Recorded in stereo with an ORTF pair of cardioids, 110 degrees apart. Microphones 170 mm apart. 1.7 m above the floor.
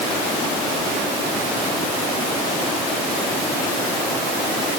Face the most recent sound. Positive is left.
No sound to turn to.